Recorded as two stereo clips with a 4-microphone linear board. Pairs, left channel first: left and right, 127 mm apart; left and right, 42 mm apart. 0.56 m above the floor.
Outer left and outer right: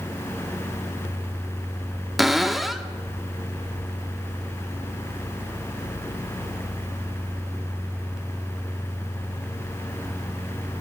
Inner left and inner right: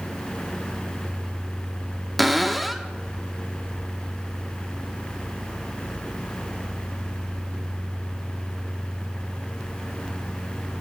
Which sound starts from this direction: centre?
A cupboard door, at 2.2 s.